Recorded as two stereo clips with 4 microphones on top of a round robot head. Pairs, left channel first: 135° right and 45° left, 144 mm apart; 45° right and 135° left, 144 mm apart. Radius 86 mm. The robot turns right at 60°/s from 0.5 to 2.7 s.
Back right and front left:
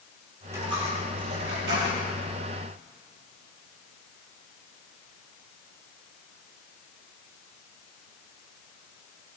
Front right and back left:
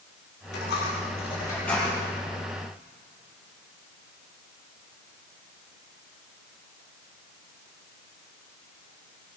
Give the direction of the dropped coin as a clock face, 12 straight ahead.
1 o'clock.